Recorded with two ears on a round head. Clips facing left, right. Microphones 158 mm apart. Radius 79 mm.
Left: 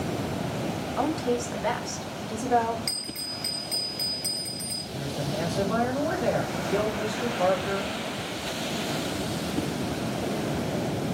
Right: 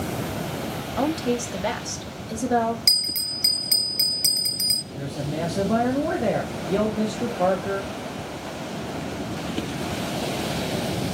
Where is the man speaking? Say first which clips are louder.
Right 2 dB; 40° right (ahead or behind), 1.6 m.